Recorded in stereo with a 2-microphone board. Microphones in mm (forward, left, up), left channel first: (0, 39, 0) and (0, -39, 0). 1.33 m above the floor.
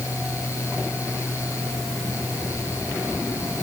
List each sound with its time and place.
Only background noise.